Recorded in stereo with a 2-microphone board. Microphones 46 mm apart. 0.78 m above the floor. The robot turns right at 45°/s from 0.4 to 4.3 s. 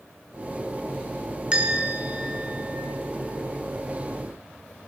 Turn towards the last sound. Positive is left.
turn(degrees=-30)